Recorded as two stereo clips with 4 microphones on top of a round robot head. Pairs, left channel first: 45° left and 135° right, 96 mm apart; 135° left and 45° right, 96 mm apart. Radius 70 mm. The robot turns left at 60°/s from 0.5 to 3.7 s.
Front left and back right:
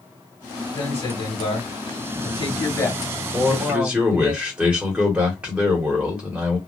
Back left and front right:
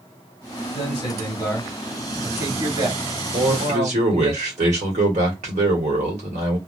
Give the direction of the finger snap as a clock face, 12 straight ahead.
I don't hear a finger snap.